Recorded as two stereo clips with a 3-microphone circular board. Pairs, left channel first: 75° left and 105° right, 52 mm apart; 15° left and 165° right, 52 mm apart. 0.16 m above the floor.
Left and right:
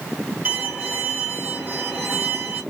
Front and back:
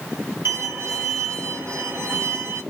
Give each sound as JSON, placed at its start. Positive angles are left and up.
{"t": 0.5, "sound": "a violin", "azimuth_deg": -165, "distance_m": 2.5}